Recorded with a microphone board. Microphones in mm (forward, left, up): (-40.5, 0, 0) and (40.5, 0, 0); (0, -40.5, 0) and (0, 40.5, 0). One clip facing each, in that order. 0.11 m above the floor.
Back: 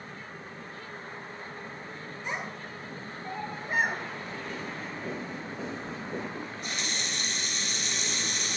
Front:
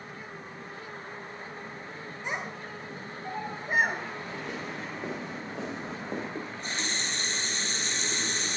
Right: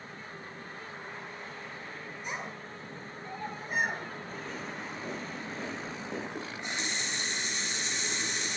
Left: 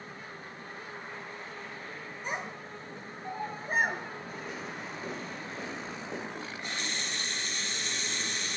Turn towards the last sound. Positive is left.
turn(degrees=-35)